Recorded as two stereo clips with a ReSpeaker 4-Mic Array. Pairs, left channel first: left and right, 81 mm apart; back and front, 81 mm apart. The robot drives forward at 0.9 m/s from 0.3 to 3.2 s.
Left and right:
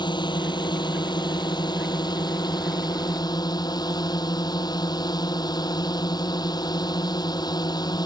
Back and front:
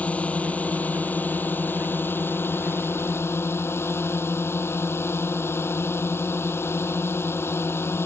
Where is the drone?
105° left; by 8.1 s 120° left.